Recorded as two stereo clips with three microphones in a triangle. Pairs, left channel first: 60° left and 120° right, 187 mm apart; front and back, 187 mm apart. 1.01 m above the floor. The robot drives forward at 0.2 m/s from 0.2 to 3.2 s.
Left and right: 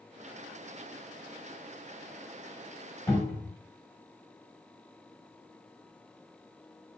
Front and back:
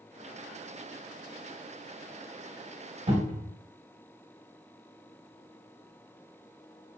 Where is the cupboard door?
135° left, 1.4 m.